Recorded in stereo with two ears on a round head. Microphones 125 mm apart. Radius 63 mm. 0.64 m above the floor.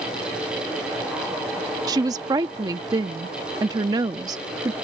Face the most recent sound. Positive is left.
turn(degrees=-25)  # may be behind; listen again after turning